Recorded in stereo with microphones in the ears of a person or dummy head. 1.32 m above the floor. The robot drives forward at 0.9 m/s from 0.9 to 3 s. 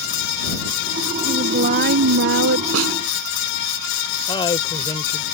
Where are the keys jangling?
No keys jangling in this recording.